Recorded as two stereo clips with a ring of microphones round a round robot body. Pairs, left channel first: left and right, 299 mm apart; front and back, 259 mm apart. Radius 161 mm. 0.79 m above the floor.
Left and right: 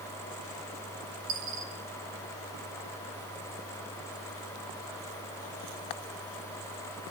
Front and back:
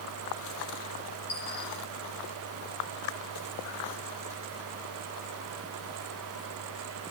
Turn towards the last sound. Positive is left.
turn(degrees=-70)